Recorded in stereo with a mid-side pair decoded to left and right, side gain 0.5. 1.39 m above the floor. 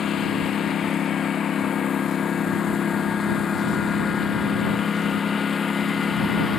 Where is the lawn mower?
50° left; by 6.6 s 35° left.